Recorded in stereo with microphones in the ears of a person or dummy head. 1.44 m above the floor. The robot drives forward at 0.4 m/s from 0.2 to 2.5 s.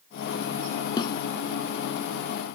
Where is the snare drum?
30° left (ahead or behind).